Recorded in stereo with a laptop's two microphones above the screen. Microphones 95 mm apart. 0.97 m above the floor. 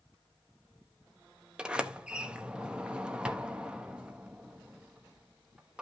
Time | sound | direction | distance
1.6 | a sliding door | 10° right (ahead or behind) | 0.6 m